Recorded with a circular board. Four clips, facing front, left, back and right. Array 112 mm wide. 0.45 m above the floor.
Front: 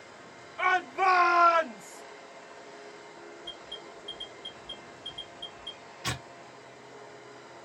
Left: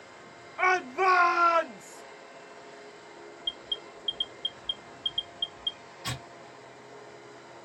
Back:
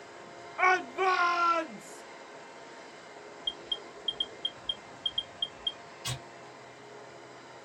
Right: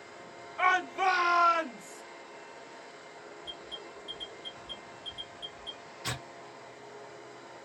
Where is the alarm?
55° right, 1.5 m.